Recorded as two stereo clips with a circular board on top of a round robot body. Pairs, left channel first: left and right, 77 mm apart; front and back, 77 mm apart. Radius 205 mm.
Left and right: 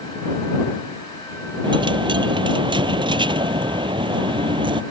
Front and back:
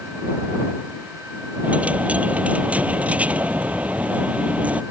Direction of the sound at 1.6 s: 105° right.